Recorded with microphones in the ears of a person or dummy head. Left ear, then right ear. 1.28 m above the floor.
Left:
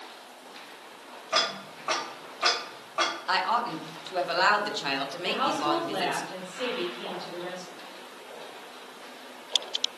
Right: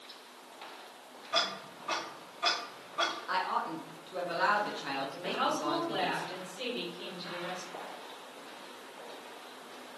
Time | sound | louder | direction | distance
1.3 | ticking | left 5 dB | 35° left (ahead or behind) | 1.0 m
3.3 | a woman speaking | left 6 dB | 30° left (ahead or behind) | 0.6 m
5.2 | a woman speaking | left 5 dB | 30° right (ahead or behind) | 1.5 m